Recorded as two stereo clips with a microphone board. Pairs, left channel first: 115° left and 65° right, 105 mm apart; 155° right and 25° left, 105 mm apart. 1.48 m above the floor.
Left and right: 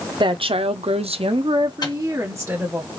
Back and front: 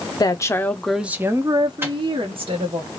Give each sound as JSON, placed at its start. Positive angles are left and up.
{"t": 0.2, "sound": "a woman speaking", "azimuth_deg": -105, "distance_m": 0.7}
{"t": 1.8, "sound": "a microwave", "azimuth_deg": 85, "distance_m": 0.8}